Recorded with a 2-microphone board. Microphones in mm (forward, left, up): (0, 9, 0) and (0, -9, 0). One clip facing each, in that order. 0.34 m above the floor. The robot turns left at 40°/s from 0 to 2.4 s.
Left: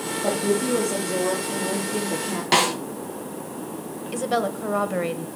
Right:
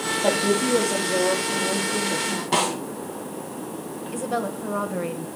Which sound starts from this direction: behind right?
A woman speaking, at 0.2 s.